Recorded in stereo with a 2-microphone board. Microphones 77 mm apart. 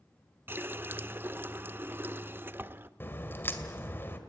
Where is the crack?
30° left (ahead or behind), 2 m.